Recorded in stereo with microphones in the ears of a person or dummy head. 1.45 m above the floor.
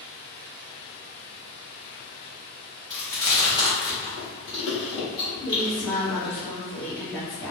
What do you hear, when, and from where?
0.0 s running water: 65° left (ahead or behind), 1.0 m
2.9 s chewing: 10° left (ahead or behind), 0.7 m
5.4 s a woman speaking: 10° left (ahead or behind), 0.9 m